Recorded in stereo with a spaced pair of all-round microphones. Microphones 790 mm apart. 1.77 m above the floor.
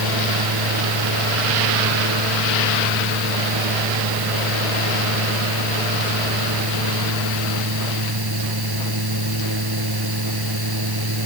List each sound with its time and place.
0.0 s a fan: 30° right (ahead or behind)